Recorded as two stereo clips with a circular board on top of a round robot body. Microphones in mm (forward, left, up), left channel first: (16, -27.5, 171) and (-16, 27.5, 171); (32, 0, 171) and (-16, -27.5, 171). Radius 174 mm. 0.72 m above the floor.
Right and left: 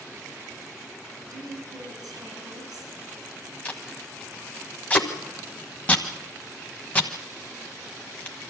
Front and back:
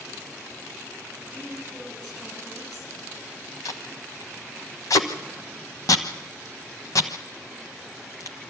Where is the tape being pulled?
10° left, 1.1 m.